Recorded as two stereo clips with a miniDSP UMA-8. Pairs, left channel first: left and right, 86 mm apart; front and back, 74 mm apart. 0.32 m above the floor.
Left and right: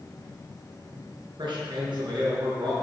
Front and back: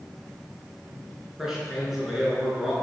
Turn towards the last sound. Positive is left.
turn(degrees=-95)